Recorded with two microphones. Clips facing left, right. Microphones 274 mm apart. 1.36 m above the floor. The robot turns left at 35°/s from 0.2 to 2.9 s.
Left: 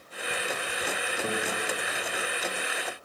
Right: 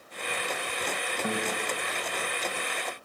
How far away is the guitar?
About 1.2 m.